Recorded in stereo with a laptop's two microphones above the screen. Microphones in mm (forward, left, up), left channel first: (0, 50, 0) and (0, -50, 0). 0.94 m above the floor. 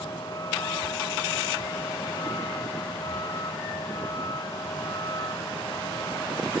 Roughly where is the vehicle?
Left.